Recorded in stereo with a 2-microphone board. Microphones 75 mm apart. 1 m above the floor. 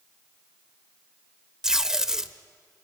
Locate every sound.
1.6 s tape being pulled: 10° right (ahead or behind), 0.7 m